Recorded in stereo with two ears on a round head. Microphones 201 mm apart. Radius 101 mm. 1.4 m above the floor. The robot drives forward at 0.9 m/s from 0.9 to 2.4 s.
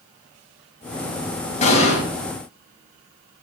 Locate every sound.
1.6 s an explosion: 30° left (ahead or behind), 4 m